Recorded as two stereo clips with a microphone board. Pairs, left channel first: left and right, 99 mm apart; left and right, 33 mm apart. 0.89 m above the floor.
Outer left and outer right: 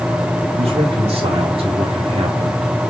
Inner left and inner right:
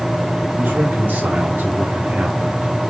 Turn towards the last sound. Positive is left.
turn(degrees=-60)  # may be behind; listen again after turning